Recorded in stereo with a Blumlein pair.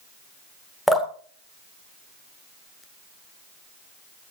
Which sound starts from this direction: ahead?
Dripping, at 0.9 s.